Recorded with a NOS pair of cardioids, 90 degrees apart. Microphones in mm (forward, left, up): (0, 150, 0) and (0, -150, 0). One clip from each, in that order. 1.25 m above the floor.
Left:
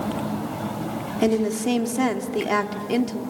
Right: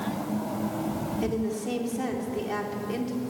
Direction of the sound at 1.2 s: 60° left.